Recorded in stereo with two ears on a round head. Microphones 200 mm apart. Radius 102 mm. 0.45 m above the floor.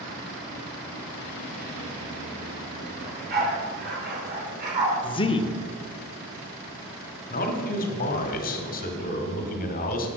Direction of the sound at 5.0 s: 25° left (ahead or behind).